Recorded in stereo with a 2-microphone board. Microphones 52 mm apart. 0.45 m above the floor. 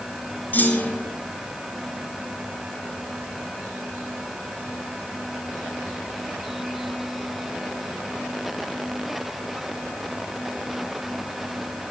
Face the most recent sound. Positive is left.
turn(degrees=35)  # may be behind; listen again after turning